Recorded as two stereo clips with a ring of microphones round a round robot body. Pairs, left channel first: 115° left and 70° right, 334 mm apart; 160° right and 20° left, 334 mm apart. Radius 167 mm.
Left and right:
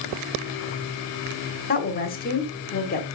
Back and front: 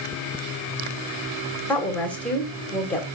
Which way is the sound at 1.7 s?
125° left.